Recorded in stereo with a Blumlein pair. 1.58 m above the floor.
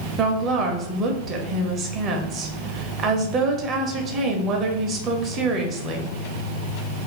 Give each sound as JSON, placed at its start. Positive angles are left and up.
{"t": 0.2, "sound": "a woman speaking", "azimuth_deg": -30, "distance_m": 0.6}